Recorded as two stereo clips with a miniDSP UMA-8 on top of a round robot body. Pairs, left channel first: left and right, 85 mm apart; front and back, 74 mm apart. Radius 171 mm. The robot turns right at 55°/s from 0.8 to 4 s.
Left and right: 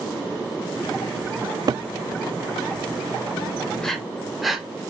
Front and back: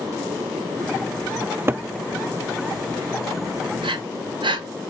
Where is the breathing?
170° left, 0.8 m; by 4.7 s straight behind, 0.8 m.